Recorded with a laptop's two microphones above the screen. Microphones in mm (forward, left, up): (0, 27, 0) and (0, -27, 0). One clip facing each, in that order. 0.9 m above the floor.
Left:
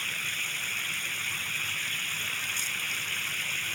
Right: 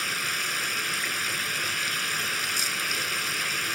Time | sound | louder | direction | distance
0.0 | running water | right 4 dB | 80° right | ?